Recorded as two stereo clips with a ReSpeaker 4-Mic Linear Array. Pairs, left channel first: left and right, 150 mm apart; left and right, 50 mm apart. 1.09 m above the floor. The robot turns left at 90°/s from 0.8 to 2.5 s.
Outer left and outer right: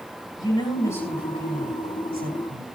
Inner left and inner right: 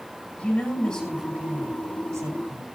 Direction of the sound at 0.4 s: 30° left.